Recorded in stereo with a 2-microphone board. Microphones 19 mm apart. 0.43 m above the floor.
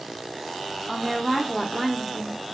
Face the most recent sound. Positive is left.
turn(degrees=-5)  # may be behind; listen again after turning